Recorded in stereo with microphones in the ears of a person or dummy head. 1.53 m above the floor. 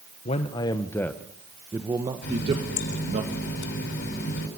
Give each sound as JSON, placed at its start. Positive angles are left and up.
{"t": 0.2, "sound": "a man speaking", "side_deg": 35, "distance_m": 1.2}
{"t": 2.2, "sound": "a running tap", "side_deg": 60, "distance_m": 6.5}